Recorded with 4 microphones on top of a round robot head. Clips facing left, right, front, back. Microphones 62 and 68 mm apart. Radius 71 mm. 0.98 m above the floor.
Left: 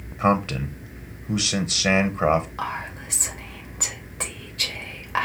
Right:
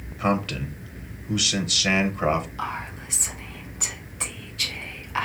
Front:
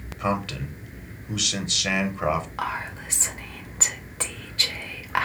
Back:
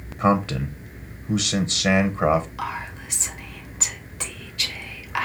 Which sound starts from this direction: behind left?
A man speaking, at 0.2 s.